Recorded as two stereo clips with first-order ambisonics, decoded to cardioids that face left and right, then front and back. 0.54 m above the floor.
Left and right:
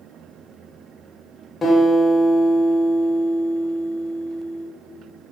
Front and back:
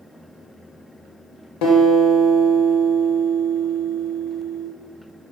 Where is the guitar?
10° left, 2.5 m.